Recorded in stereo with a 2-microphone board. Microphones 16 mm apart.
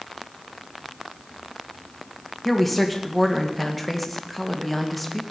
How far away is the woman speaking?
About 1.9 m.